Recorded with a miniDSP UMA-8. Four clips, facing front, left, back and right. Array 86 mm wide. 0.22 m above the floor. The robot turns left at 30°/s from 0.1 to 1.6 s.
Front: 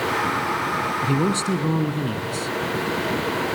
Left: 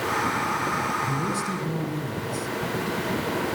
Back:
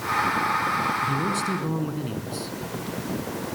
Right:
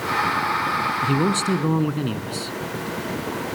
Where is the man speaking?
50° right, 2 m; by 2.5 s 70° right, 2 m.